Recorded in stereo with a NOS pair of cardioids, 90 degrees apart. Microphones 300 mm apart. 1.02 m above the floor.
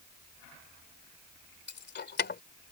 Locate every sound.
1.7 s keys jangling: 35° left